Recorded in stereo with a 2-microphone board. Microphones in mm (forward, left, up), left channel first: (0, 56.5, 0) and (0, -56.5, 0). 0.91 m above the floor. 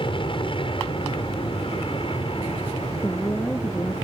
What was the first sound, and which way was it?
An aircraft, 50° left (ahead or behind).